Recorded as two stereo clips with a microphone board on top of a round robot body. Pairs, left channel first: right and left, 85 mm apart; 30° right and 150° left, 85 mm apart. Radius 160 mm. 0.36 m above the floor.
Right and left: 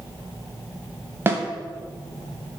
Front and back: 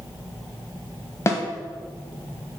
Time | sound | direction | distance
1.3 | a snare drum | 25° left | 1.2 m